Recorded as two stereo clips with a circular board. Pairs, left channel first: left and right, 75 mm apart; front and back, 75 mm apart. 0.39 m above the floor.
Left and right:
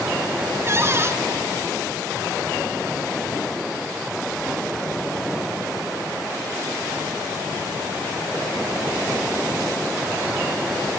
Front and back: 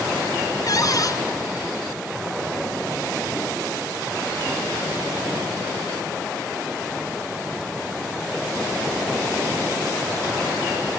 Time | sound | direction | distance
0.7 | a cupboard door | 35° right | 1.8 m